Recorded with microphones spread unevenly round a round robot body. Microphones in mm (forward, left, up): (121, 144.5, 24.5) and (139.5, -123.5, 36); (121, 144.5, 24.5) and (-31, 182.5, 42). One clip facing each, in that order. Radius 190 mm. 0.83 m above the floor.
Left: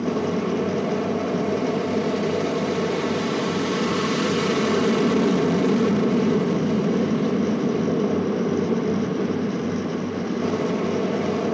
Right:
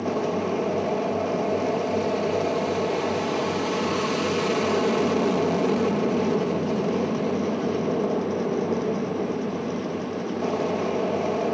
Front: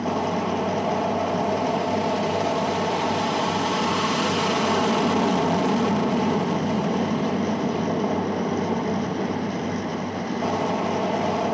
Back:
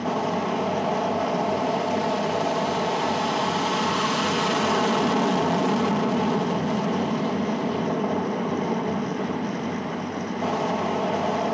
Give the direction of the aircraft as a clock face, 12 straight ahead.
10 o'clock.